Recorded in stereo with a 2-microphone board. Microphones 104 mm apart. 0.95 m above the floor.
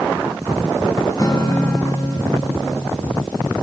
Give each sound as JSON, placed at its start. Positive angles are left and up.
{"t": 1.2, "sound": "a guitar", "side_deg": 35, "distance_m": 3.5}